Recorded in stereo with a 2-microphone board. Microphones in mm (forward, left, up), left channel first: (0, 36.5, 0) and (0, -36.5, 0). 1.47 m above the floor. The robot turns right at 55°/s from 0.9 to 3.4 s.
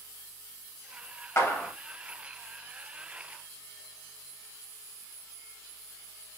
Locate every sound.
1.4 s a clap: 35° left (ahead or behind), 1.3 m; by 1.7 s 15° left (ahead or behind), 1.3 m